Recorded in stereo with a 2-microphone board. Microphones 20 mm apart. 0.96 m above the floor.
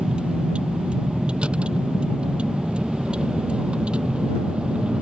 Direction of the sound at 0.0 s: 80° right.